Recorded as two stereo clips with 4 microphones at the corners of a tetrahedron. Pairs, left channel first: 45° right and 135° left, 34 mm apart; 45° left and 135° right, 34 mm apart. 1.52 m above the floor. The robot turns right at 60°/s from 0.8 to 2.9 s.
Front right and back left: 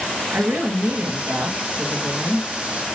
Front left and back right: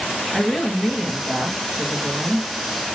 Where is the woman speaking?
140° left, 2.5 m; by 2.5 s 120° right, 2.5 m.